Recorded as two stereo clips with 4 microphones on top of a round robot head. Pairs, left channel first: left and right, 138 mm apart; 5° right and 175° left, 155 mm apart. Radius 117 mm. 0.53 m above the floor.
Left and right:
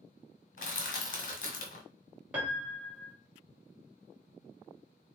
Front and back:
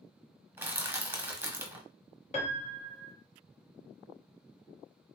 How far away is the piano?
About 1.0 m.